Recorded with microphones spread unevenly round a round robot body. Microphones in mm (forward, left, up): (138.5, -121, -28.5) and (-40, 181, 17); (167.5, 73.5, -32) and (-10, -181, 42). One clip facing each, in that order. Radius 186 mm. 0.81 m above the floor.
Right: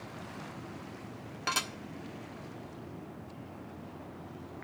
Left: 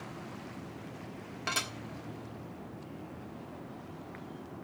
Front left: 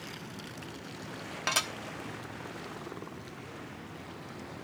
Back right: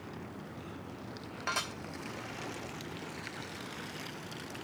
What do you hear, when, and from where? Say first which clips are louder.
1.5 s dishes clattering: right 1 dB, front left 3 dB; 20° left, 1.2 m